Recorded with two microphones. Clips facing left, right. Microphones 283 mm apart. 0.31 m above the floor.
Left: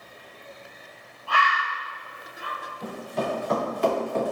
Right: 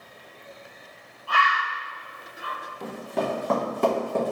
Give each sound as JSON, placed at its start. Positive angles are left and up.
{"t": 1.3, "sound": "a bird", "side_deg": -25, "distance_m": 2.0}
{"t": 2.8, "sound": "running footsteps", "side_deg": -75, "distance_m": 1.5}